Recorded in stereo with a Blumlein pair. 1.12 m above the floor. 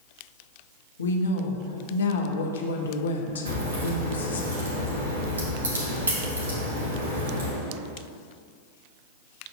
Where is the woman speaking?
70° left, 1.0 m.